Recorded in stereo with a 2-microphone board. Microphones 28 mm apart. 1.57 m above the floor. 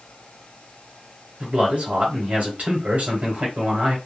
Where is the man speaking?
65° right (ahead or behind), 1.1 m.